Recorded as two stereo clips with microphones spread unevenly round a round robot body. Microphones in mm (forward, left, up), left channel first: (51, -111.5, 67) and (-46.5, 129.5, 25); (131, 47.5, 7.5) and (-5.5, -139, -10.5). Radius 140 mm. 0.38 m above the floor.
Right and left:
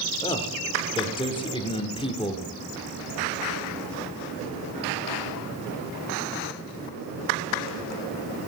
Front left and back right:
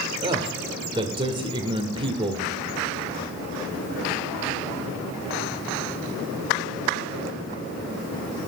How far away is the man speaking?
About 1.0 m.